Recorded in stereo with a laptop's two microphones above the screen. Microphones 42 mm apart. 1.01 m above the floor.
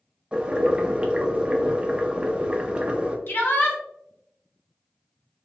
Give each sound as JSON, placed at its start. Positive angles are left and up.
{"t": 0.3, "sound": "boiling", "side_deg": -25, "distance_m": 0.5}
{"t": 3.3, "sound": "a shout", "side_deg": 65, "distance_m": 1.3}